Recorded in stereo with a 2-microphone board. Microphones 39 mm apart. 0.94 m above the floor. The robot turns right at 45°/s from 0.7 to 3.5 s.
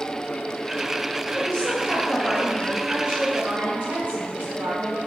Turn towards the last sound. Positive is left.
turn(degrees=-125)